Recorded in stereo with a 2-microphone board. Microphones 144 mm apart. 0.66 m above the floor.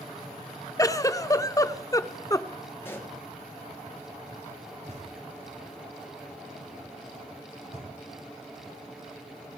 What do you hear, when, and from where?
0.8 s a giggle: 25° left (ahead or behind), 0.5 m
2.8 s a pop: 15° left (ahead or behind), 2.5 m
4.9 s knocking: 55° right (ahead or behind), 6 m